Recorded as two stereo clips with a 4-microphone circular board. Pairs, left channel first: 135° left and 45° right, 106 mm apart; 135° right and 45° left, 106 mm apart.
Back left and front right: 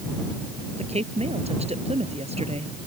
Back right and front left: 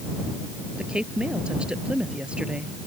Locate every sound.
0.8 s a woman speaking: 35° right